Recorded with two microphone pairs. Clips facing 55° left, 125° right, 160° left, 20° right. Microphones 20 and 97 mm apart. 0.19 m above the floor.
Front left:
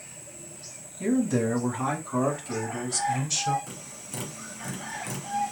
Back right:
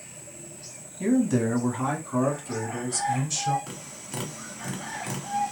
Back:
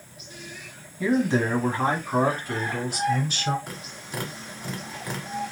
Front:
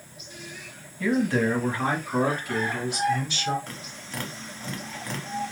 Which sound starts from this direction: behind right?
Tapping, at 3.7 s.